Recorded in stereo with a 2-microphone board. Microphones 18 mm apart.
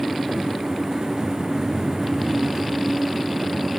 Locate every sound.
Only background noise.